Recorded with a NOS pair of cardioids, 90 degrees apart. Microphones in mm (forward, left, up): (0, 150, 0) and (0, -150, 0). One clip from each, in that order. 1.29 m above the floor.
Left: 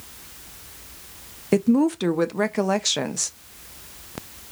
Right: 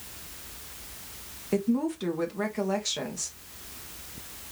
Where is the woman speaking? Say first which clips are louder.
Left 8 dB; 45° left, 0.6 m.